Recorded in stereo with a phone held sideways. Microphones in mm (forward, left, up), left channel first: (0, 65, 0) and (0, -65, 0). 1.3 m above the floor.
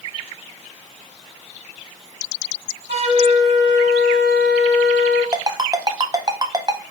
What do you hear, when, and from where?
2.9 s a flute: 65° right (ahead or behind), 1.3 m
5.3 s a ringtone: 30° right (ahead or behind), 0.6 m